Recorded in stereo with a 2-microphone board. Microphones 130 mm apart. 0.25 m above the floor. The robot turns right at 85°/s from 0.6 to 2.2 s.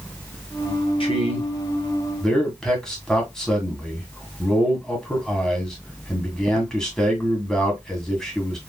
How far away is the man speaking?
About 2.0 m.